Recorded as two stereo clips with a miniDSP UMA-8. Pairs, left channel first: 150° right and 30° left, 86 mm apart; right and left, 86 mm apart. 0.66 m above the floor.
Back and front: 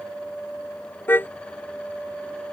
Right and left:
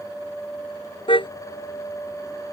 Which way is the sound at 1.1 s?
85° right.